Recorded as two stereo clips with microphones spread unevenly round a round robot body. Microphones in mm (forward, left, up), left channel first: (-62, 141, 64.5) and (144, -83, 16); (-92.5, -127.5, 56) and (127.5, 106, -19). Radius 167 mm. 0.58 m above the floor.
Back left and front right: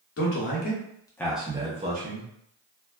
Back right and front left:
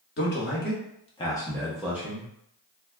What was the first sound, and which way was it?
A man speaking, 170° left.